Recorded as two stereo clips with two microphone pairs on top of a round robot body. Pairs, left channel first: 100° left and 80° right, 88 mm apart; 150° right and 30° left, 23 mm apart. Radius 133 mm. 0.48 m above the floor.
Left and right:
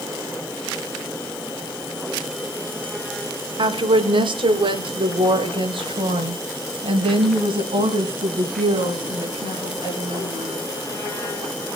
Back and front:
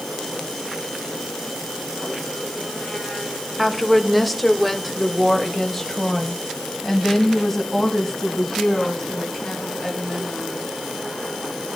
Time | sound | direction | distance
3.6 | a woman speaking | 65° right | 1.6 m